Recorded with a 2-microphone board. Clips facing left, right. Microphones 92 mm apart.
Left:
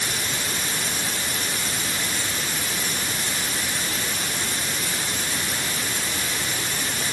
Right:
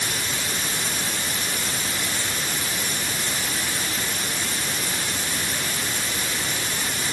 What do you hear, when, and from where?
Only background noise.